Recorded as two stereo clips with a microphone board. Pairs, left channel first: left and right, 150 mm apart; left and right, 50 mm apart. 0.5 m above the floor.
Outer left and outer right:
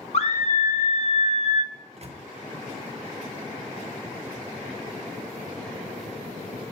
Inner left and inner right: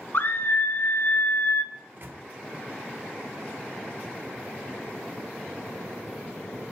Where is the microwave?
45° right (ahead or behind), 0.9 m.